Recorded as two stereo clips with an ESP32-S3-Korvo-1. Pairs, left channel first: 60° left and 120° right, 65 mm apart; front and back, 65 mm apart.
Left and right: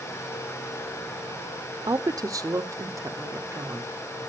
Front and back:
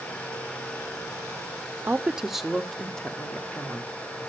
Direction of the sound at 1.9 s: 110° right.